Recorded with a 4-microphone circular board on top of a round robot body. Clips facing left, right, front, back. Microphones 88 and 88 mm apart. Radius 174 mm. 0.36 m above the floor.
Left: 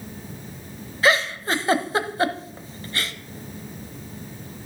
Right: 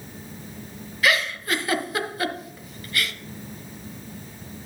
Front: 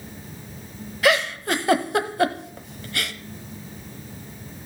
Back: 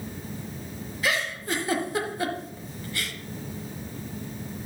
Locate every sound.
1.0 s a giggle: 30° left, 1.0 m